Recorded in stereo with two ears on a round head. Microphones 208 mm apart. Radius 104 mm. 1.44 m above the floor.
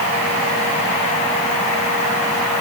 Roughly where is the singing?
I don't hear singing.